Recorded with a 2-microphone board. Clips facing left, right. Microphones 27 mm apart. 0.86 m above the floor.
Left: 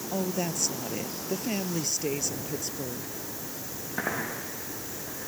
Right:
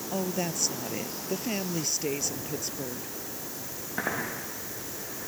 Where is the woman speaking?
5° right (ahead or behind).